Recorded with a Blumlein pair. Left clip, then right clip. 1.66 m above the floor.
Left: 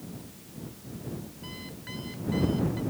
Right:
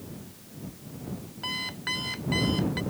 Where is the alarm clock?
60° right.